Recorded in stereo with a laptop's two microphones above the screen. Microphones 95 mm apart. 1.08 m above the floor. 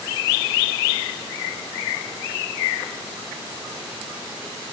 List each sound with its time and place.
Only background noise.